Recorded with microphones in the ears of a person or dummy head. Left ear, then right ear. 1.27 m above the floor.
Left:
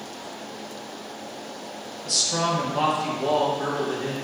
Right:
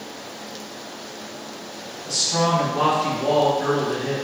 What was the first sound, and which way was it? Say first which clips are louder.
A man speaking: right 2 dB; 70° left (ahead or behind).